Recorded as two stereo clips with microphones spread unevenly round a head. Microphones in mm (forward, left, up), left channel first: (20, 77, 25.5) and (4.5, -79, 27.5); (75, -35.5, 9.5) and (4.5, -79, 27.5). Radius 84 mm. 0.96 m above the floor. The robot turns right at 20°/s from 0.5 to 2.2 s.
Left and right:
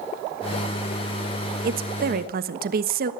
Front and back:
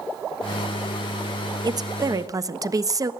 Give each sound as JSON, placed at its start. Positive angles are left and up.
{"t": 1.6, "sound": "a woman speaking", "azimuth_deg": -110, "distance_m": 1.3}